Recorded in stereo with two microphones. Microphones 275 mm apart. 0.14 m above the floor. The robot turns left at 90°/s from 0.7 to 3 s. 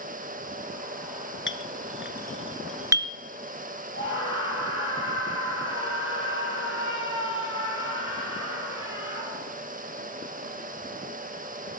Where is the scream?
45° left (ahead or behind), 3.5 m.